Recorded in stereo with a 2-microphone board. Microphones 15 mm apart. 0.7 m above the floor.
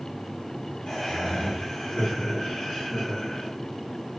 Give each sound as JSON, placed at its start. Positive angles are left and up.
{"t": 0.9, "sound": "laughter", "side_deg": 70, "distance_m": 1.6}